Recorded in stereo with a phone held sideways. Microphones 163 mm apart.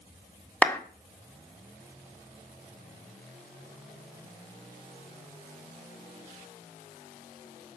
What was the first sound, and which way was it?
A clap, 10° left (ahead or behind).